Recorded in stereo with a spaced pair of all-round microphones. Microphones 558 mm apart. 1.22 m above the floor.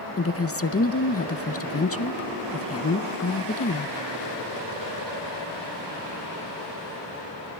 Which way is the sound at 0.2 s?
25° left (ahead or behind).